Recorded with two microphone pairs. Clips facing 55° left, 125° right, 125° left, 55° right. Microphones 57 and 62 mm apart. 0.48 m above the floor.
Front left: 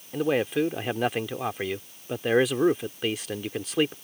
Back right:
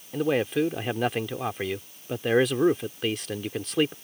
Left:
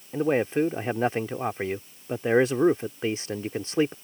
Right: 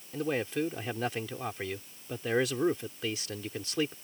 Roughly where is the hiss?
I don't hear a hiss.